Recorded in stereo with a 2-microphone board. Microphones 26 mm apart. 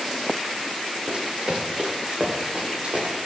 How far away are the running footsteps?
About 4 m.